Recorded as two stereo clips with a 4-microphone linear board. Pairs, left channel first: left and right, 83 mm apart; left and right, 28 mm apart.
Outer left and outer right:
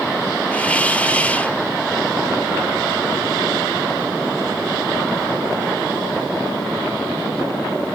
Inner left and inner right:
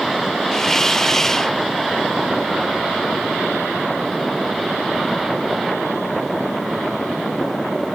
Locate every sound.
0.5 s a hiss: 20° left (ahead or behind)